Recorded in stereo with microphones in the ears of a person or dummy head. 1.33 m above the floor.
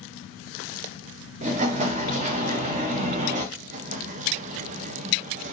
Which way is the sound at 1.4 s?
35° right (ahead or behind).